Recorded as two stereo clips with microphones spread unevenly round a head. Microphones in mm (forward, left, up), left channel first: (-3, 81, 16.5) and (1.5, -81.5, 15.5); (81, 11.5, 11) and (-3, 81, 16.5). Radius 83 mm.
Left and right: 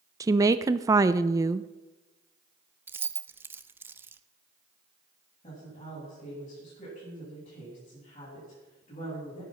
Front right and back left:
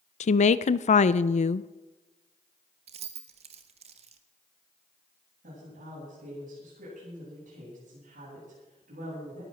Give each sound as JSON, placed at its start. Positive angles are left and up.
{"t": 0.2, "sound": "a woman speaking", "azimuth_deg": -15, "distance_m": 0.5}
{"t": 2.9, "sound": "keys jangling", "azimuth_deg": -165, "distance_m": 0.6}
{"t": 5.4, "sound": "a woman speaking", "azimuth_deg": 150, "distance_m": 8.5}